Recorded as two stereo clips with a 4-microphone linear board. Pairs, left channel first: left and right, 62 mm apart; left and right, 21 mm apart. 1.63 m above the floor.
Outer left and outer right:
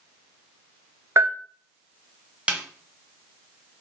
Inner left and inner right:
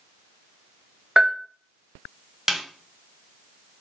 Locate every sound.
1.2 s a bell: 45° right (ahead or behind), 0.9 m
2.5 s a snare drum: 20° right (ahead or behind), 0.7 m